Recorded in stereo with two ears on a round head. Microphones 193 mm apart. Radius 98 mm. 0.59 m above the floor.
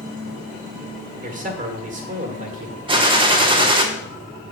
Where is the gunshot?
25° right (ahead or behind), 0.9 m.